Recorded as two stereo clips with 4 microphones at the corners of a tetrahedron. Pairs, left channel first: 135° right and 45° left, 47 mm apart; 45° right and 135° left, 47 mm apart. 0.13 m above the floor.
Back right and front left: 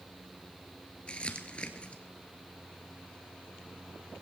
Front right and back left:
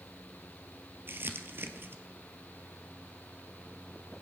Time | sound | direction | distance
1.1 | crumpling | 160° left | 1.6 m